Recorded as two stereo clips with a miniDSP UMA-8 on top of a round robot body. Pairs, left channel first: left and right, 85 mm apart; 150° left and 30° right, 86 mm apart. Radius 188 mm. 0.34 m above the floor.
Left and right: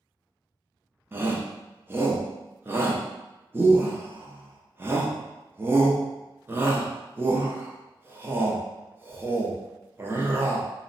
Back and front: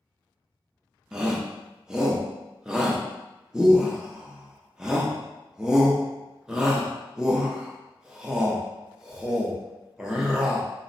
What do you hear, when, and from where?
1.1 s a shout: 100° right, 0.8 m